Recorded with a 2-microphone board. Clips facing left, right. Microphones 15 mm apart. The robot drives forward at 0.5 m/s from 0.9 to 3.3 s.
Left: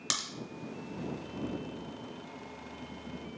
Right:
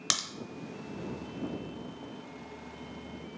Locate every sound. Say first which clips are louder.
0.1 s a crack: right 3 dB; 25° right (ahead or behind), 0.7 m